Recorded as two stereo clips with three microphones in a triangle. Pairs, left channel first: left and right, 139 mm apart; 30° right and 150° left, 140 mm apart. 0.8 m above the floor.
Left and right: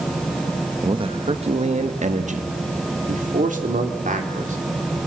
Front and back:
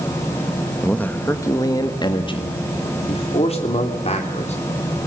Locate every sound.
0.8 s a man speaking: 110° right, 1.1 m; by 5.0 s 70° right, 3.5 m